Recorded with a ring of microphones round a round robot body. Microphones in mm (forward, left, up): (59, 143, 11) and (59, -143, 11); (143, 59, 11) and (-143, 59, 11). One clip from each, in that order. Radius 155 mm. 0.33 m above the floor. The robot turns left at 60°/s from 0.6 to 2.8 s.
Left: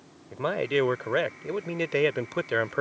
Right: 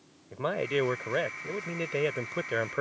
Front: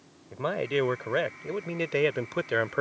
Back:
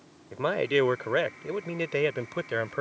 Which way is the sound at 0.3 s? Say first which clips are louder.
Left 3 dB, back 3 dB; 160° left.